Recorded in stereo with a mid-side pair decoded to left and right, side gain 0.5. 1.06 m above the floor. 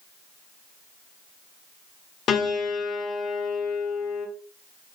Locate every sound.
2.3 s a piano: 60° left, 0.9 m